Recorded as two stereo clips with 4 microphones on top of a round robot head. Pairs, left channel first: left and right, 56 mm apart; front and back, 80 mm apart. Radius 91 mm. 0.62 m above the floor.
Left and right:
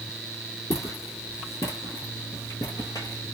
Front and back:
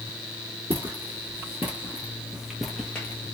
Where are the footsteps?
120° left, 1.6 m; by 3.4 s 25° left, 0.6 m.